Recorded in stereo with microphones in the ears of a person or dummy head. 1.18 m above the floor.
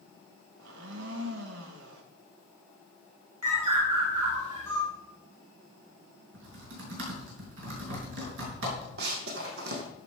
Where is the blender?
80° right, 1.6 m.